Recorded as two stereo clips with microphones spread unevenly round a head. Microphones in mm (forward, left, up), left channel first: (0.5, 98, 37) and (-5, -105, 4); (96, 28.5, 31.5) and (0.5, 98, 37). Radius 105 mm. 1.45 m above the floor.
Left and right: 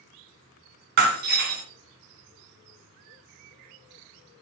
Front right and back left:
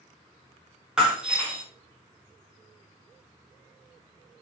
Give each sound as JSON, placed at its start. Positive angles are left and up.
{"t": 1.0, "sound": "breaking glass", "azimuth_deg": -135, "distance_m": 2.0}